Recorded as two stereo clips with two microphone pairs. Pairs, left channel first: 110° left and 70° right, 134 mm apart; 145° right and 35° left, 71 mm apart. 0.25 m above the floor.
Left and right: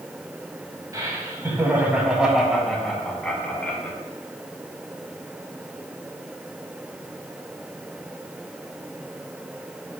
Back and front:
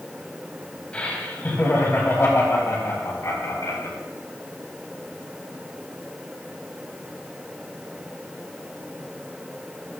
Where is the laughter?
95° right, 1.8 m; by 4.0 s 175° right, 3 m.